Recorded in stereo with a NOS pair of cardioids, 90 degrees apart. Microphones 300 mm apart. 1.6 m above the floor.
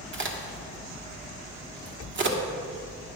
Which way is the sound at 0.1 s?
40° right.